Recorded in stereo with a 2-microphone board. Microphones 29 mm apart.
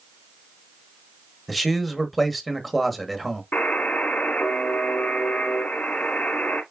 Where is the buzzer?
65° left (ahead or behind), 2.0 m.